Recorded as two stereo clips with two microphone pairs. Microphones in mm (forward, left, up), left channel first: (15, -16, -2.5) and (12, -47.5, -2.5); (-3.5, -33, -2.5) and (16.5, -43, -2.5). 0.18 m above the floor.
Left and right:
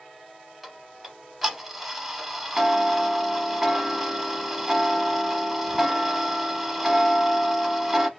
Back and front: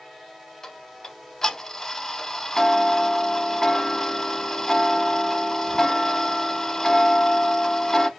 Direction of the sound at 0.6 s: 175° right.